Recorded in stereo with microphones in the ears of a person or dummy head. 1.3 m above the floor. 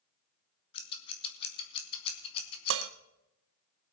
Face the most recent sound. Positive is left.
turn(degrees=-70)  # may be behind; listen again after turning